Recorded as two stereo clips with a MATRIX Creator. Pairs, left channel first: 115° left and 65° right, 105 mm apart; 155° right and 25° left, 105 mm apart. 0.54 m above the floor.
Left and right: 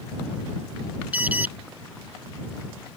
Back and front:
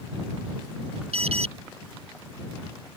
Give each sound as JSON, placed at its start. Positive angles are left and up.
{"t": 1.1, "sound": "an alarm", "azimuth_deg": 10}